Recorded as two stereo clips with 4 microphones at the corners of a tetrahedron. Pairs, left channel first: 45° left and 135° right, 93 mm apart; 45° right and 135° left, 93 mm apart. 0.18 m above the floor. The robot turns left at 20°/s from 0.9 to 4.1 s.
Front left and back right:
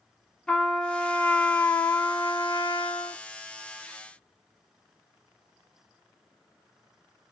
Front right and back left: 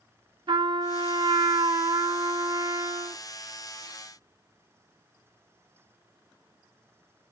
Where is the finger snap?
No finger snap in this recording.